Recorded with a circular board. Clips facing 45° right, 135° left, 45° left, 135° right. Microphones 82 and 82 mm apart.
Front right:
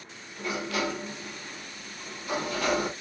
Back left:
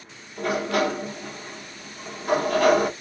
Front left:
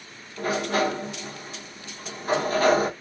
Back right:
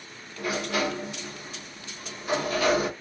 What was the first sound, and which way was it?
A sliding door, 95° left.